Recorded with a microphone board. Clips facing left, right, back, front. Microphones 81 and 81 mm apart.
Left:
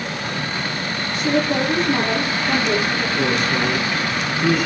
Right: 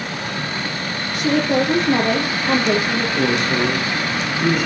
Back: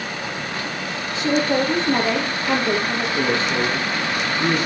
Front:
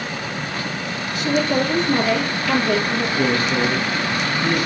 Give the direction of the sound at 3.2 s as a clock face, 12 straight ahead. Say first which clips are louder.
Right 2 dB, front 1 dB; 4 o'clock.